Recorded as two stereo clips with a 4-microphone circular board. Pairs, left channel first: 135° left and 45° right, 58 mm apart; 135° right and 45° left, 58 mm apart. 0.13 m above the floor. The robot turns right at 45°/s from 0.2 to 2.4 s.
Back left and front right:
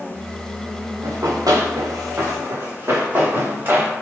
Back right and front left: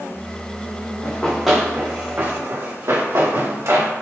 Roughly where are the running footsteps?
Right.